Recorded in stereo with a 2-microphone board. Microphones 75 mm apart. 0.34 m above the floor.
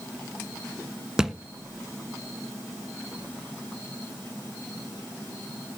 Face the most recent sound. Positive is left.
turn(degrees=-5)  # may be behind; listen again after turning